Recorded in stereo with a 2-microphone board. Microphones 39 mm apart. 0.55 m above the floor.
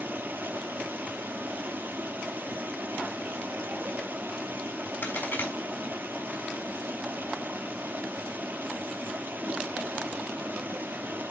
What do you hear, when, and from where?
0.0 s running water: 65° right (ahead or behind), 1.2 m
5.0 s a crack: 70° left (ahead or behind), 3.5 m